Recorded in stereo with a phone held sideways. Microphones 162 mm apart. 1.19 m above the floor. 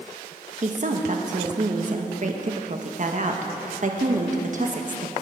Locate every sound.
0.6 s a woman speaking: 50° right (ahead or behind), 1.6 m